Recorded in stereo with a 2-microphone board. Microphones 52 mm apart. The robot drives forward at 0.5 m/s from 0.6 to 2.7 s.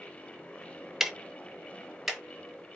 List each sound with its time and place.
1.0 s ticking: 5° right (ahead or behind), 0.5 m